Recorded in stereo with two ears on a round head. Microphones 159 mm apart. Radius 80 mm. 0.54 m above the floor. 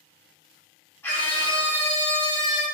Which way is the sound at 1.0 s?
10° left (ahead or behind).